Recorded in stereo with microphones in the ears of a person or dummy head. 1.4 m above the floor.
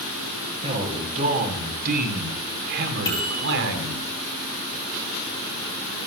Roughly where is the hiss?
I don't hear a hiss.